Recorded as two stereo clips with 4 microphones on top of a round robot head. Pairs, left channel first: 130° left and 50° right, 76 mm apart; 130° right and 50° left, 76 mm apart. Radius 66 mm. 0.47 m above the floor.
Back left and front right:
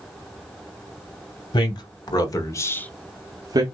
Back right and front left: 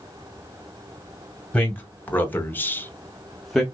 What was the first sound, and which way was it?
A man speaking, 160° left.